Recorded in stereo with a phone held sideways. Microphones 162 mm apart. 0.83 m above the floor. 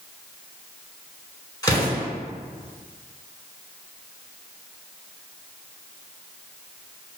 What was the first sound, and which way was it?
An explosion, 25° left (ahead or behind).